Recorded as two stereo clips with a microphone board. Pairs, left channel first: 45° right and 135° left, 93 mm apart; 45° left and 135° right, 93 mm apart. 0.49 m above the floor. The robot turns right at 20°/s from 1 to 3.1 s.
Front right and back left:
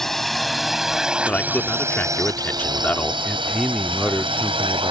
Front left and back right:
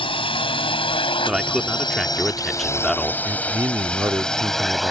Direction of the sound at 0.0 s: 40° left.